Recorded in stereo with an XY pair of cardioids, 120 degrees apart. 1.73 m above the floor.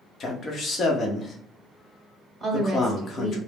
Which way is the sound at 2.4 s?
10° right.